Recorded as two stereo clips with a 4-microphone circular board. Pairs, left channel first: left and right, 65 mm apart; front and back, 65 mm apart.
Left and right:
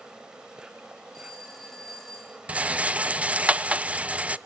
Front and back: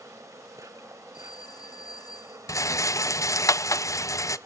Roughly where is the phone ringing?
Ahead.